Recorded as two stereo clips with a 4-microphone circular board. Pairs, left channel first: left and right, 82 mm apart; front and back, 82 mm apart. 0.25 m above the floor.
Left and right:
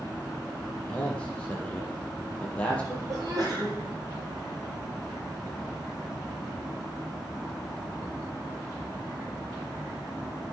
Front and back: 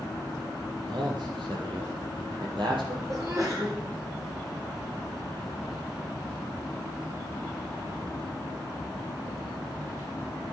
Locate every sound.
0.8 s a man speaking: 160° left, 5.5 m; by 3.0 s 165° left, 6.5 m
3.1 s a sneeze: 130° right, 7 m